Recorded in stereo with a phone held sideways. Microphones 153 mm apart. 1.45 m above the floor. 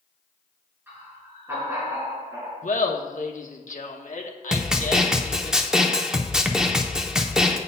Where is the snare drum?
5° right (ahead or behind), 0.9 m.